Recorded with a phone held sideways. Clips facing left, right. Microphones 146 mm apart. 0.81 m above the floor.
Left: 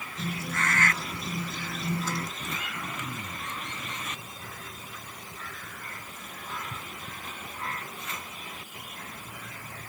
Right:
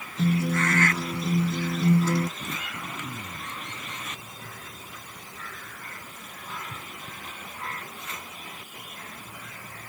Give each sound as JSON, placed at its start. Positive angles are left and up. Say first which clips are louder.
{"t": 0.2, "sound": "a guitar", "louder": "right 9 dB", "side_deg": -80}
{"t": 2.4, "sound": "throat clearing", "louder": "right 1 dB", "side_deg": -15}